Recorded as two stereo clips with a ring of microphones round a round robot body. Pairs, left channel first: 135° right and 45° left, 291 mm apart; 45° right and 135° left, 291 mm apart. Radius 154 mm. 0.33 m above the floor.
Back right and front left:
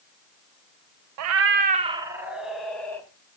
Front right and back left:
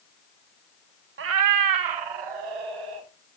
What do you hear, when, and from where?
1.2 s a cat meowing: 80° left, 0.5 m; by 3.1 s 140° left, 1.5 m